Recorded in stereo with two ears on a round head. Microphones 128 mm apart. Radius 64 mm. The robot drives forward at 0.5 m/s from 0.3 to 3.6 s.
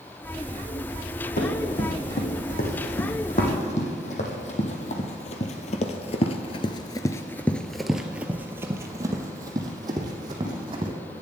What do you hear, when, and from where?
1.4 s running footsteps: 65° left (ahead or behind), 3 m; by 10.9 s 35° right (ahead or behind), 2.5 m